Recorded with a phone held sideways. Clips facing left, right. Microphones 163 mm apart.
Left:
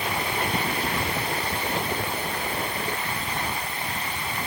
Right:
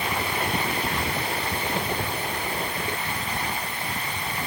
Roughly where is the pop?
I don't hear a pop.